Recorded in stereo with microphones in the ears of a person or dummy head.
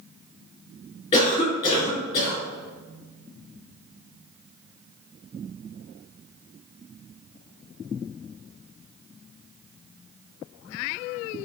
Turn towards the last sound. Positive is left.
turn(degrees=25)  # may be behind; listen again after turning